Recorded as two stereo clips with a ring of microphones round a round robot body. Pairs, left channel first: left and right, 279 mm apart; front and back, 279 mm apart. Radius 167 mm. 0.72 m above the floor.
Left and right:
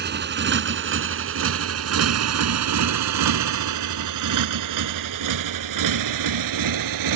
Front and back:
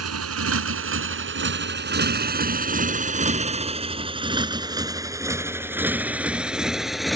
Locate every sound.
0.0 s a motorcycle: 145° right; by 7.2 s 90° right